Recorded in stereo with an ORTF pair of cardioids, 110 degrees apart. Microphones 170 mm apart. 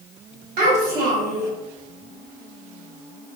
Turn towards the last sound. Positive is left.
turn(degrees=-55)